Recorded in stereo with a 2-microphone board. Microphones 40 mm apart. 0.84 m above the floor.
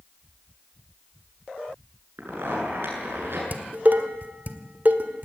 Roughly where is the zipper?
Right.